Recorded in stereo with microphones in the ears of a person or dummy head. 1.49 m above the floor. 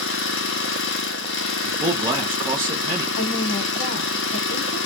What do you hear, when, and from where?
0.0 s an engine running: 80° left, 1.1 m
1.6 s a man speaking: 15° right (ahead or behind), 1.2 m
3.2 s a woman speaking: 50° left (ahead or behind), 1.3 m